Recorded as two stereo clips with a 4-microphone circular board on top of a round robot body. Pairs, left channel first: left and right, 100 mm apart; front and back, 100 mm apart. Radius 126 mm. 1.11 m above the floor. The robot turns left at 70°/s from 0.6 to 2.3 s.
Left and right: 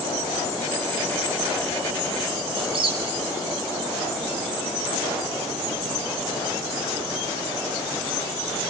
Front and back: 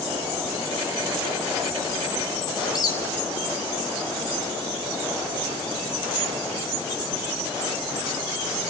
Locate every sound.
2.6 s a squeak: 55° right, 2.5 m